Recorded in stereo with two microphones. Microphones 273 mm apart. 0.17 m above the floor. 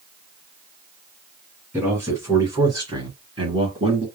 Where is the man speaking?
5° right (ahead or behind), 1.9 m; by 4.0 s 20° right (ahead or behind), 1.6 m.